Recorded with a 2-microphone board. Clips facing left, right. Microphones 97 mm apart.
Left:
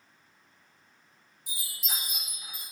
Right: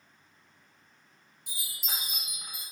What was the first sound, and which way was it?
A chime, 65° right (ahead or behind).